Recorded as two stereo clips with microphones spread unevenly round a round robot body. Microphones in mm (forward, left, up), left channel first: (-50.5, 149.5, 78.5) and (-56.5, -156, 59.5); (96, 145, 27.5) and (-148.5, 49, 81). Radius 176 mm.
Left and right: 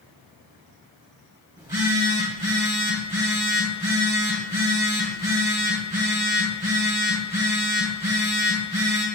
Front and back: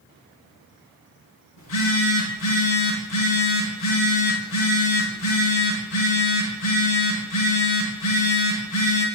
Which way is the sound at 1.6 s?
10° right.